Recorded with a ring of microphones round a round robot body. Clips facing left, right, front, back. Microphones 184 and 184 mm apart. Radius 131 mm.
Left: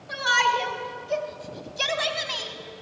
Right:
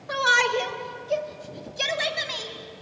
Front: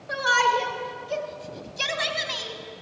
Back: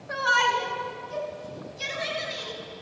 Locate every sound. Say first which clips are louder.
0.1 s a shout: right 3 dB, front 3 dB; 65° right, 2.5 m; by 2.5 s 5° right, 4 m